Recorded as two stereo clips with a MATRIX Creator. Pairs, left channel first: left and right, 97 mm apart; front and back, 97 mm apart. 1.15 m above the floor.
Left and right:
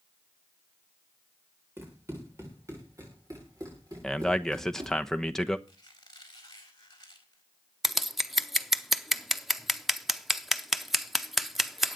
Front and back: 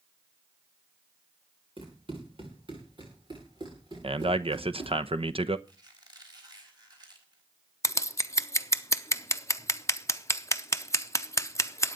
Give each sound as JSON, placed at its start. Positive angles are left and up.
{"t": 1.8, "sound": "running footsteps", "azimuth_deg": -155, "distance_m": 8.0}
{"t": 4.0, "sound": "a man speaking", "azimuth_deg": 175, "distance_m": 0.9}
{"t": 5.7, "sound": "a squeak", "azimuth_deg": 135, "distance_m": 4.5}
{"t": 7.8, "sound": "scissors", "azimuth_deg": -5, "distance_m": 0.7}